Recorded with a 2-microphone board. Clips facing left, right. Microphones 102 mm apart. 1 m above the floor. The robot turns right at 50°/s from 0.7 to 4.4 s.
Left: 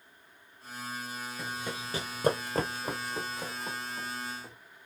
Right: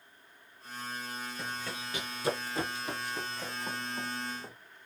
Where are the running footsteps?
Centre (ahead or behind), 1.4 m; by 4.5 s 40° right (ahead or behind), 2.5 m.